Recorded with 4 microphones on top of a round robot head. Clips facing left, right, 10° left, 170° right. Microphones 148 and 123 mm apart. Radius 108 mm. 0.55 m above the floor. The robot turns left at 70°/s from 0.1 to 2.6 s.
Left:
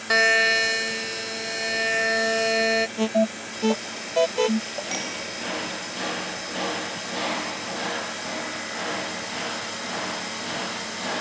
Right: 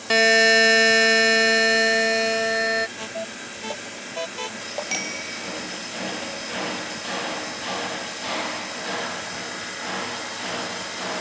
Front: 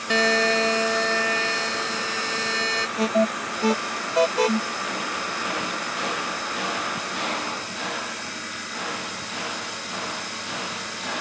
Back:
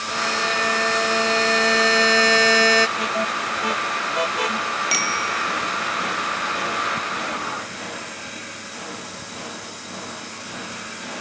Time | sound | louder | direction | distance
0.1 | a buzzer | right 5 dB, front 4 dB | 20° right | ?
3.0 | an alarm | left 11 dB, front 3 dB | 60° left | ?
4.9 | a bicycle bell | left 1 dB, back 4 dB | 170° right | ?